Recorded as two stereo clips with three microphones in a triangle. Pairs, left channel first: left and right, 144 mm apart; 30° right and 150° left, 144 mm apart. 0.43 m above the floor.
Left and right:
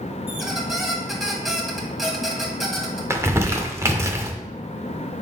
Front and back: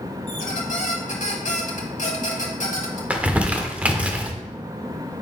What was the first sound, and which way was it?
A squeak, straight ahead.